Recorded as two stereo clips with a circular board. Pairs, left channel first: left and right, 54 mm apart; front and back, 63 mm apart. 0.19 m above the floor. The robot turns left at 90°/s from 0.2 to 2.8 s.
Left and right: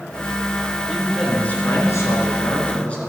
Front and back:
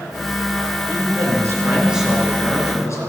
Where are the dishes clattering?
I don't hear dishes clattering.